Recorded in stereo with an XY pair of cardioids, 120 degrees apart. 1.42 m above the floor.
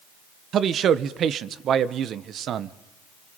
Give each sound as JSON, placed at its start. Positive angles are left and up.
{"t": 0.5, "sound": "a man speaking", "azimuth_deg": -55, "distance_m": 1.2}